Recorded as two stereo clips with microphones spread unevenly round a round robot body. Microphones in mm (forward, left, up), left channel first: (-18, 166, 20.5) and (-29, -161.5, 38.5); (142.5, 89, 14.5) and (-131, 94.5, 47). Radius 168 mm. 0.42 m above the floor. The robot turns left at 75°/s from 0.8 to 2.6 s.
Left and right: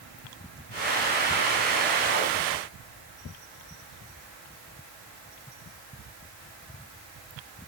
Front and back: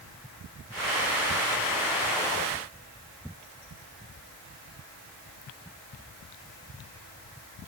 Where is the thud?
I don't hear a thud.